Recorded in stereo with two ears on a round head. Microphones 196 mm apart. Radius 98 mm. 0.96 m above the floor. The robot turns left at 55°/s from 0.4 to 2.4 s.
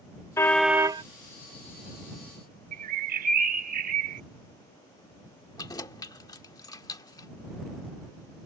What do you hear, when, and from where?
0.4 s a car horn: 10° left; by 1.0 s 25° right
2.7 s a bird: 35° right (ahead or behind)
5.6 s keys jangling: 15° left (ahead or behind)